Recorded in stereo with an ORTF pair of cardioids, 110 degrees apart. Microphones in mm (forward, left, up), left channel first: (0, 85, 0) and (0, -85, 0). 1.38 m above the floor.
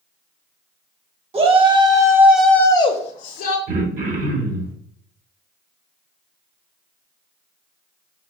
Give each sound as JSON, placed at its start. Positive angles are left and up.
{"t": 1.3, "sound": "a shout", "azimuth_deg": -35, "distance_m": 1.1}
{"t": 3.7, "sound": "throat clearing", "azimuth_deg": -55, "distance_m": 1.3}